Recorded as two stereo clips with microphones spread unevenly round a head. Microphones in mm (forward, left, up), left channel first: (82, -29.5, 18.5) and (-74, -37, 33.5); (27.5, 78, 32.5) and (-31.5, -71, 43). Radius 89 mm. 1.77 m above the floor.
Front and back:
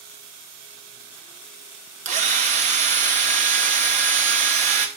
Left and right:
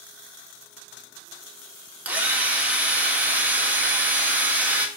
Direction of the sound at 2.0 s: 175° left.